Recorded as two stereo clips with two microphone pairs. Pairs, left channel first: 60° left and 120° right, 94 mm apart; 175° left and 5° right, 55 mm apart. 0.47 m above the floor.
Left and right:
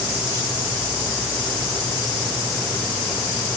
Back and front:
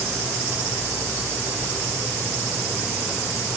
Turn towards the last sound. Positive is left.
No sound to turn to.